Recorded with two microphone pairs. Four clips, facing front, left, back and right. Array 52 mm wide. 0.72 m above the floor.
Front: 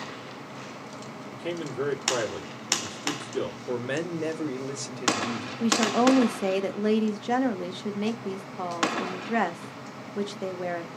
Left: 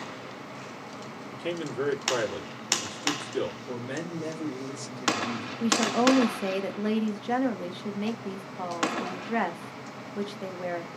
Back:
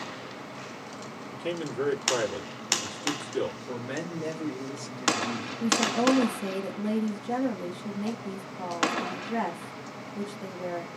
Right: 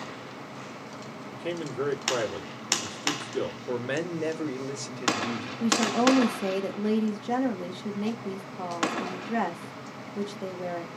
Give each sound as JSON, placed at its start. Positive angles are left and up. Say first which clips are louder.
{"t": 1.3, "sound": "a man speaking", "louder": "even, even", "azimuth_deg": 120, "distance_m": 1.6}
{"t": 3.7, "sound": "a man speaking", "louder": "right 4 dB, front 5 dB", "azimuth_deg": -70, "distance_m": 0.7}
{"t": 5.6, "sound": "a woman speaking", "louder": "even, front 3 dB", "azimuth_deg": 40, "distance_m": 0.5}